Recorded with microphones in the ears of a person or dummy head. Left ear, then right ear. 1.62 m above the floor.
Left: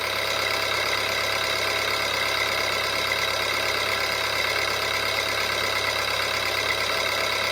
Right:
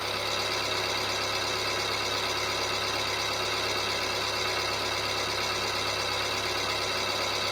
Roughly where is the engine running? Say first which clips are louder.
Left 5 dB; left.